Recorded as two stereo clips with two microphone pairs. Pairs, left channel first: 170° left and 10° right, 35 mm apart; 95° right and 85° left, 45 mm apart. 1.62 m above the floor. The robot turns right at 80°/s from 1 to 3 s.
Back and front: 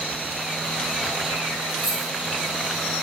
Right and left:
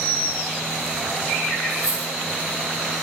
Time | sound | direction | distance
1.7 | a dropped coin | 30° left | 1.1 m